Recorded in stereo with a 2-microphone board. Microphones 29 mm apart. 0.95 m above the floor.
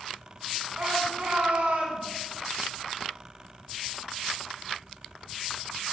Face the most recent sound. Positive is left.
turn(degrees=-80)